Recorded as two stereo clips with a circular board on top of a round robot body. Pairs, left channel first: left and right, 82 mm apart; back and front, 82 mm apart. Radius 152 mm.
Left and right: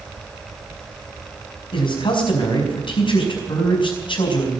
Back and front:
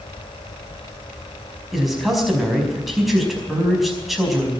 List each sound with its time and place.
1.7 s a man speaking: 90° left, 5 m